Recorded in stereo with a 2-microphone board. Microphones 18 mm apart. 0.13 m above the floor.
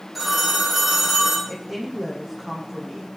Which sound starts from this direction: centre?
A phone ringing, at 0.1 s.